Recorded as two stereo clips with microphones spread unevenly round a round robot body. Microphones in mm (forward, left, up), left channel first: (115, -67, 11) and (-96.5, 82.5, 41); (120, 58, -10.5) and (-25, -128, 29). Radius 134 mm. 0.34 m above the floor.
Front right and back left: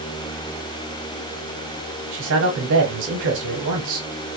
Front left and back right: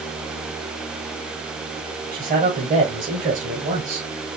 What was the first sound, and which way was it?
A man speaking, 175° left.